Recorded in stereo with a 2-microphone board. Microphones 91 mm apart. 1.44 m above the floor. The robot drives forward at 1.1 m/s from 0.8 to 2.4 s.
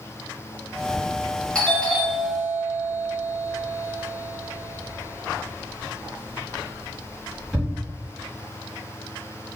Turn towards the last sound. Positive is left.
turn(degrees=10)  # may be behind; listen again after turning